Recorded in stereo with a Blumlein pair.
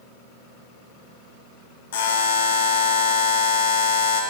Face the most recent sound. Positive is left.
turn(degrees=55)